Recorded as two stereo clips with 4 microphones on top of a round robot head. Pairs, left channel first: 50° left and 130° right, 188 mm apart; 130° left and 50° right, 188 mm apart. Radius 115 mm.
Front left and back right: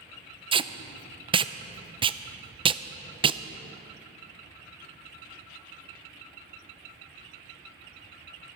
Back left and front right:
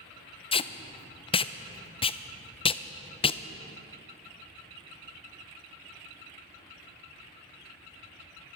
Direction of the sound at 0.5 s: Straight behind.